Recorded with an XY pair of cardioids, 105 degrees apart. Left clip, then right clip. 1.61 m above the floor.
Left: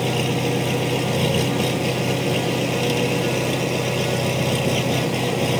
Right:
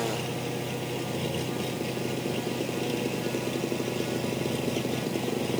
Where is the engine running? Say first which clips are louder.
Left 9 dB; 70° left.